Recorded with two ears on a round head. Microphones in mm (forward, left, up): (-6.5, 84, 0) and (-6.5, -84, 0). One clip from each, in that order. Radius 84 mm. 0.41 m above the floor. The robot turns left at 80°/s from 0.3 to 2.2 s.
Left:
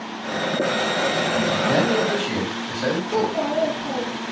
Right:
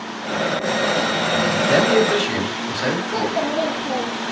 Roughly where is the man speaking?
Right.